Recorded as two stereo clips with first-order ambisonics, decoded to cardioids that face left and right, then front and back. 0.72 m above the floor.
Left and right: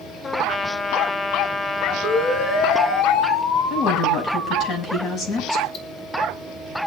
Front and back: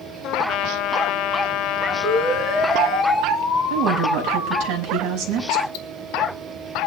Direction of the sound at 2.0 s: 95° left.